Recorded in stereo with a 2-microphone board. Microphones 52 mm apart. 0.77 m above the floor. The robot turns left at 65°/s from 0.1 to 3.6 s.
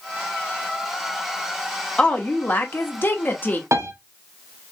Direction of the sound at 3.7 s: 60° right (ahead or behind).